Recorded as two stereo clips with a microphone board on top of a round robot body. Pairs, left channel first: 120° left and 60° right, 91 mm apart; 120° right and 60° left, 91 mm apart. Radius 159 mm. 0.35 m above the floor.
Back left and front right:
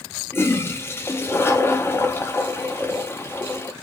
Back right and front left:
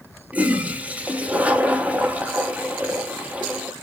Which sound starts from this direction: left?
A toilet flushing, at 0.3 s.